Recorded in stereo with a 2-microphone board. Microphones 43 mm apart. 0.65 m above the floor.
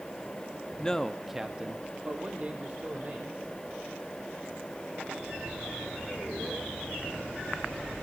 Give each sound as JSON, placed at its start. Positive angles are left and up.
{"t": 0.8, "sound": "a man speaking", "side_deg": 20, "distance_m": 0.9}